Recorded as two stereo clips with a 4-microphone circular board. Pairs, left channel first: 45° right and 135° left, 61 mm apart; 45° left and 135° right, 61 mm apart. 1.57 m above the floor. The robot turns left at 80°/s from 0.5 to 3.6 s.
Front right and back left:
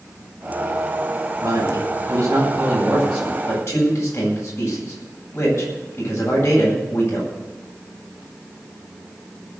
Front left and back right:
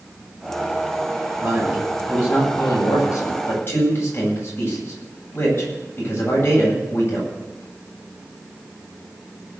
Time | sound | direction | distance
1.4 | a man speaking | 170° left | 9.5 m